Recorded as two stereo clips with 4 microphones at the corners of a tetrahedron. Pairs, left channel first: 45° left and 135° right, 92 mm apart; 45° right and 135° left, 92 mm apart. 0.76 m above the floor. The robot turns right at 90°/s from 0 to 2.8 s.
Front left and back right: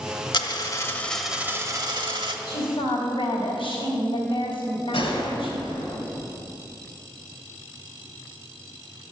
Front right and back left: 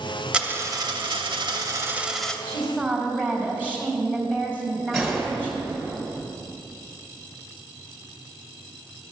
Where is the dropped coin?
55° left, 0.8 m; by 2.4 s 120° right, 0.8 m.